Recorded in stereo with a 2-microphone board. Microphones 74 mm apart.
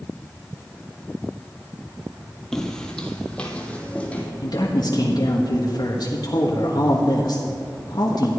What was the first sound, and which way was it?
Footsteps, 5° left (ahead or behind).